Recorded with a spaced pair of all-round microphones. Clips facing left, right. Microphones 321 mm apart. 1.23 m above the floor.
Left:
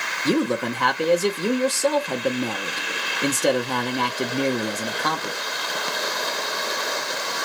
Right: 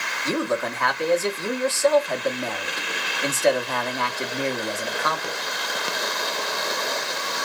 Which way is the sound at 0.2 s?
45° left (ahead or behind).